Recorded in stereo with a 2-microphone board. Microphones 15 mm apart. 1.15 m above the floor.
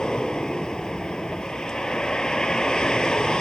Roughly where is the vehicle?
Left.